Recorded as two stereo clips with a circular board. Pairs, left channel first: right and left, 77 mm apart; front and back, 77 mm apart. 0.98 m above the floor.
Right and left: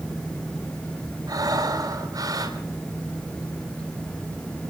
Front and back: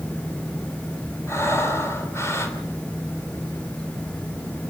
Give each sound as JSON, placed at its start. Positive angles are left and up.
{"t": 1.3, "sound": "breathing", "azimuth_deg": 55, "distance_m": 5.0}